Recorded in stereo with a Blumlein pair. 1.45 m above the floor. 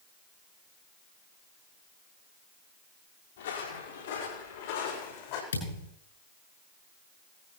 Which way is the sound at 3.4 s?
60° left.